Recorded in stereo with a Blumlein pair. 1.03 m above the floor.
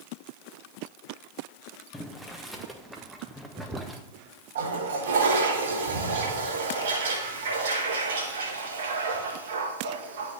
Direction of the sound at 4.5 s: 60° right.